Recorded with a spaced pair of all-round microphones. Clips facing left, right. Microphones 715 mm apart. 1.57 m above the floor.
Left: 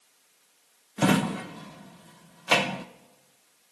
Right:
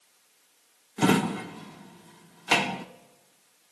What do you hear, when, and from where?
1.0 s a drawer: 10° left (ahead or behind), 0.7 m